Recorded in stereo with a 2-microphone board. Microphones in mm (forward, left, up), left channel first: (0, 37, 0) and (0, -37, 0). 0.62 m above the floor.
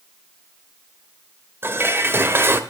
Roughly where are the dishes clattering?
Right.